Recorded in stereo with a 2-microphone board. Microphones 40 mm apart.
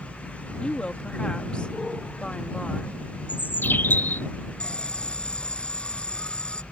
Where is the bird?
55° left (ahead or behind).